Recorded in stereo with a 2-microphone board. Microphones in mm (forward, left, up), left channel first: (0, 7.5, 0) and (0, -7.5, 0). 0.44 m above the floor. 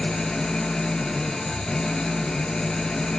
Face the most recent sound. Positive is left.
turn(degrees=60)  # may be behind; listen again after turning